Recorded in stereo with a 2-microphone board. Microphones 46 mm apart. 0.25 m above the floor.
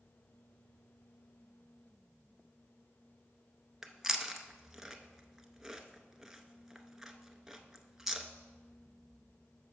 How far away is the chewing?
About 0.5 m.